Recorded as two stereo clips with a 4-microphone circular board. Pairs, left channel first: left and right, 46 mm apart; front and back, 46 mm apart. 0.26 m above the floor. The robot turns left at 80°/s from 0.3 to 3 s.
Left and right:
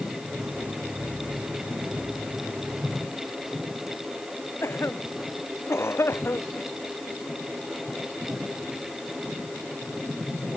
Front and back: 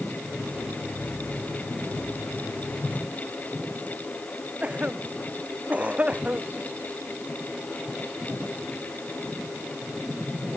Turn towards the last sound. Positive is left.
turn(degrees=115)